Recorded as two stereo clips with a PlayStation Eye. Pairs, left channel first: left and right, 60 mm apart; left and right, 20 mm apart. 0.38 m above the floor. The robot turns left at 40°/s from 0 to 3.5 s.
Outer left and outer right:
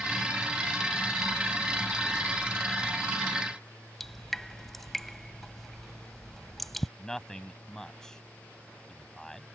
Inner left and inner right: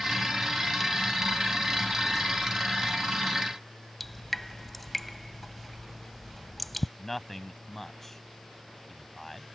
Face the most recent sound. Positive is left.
turn(degrees=10)  # may be behind; listen again after turning